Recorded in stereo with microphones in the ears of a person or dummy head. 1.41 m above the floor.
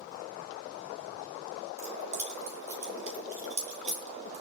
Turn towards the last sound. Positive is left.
turn(degrees=-40)  # may be behind; listen again after turning